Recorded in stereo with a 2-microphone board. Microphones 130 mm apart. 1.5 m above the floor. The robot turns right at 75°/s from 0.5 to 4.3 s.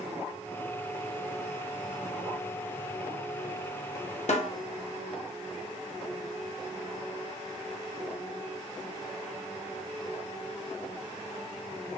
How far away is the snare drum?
About 0.7 m.